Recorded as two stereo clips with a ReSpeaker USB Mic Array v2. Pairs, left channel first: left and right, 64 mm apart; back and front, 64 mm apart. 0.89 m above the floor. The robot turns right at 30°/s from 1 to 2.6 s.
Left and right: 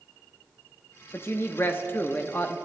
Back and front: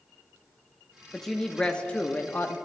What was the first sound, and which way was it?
A woman speaking, 95° left.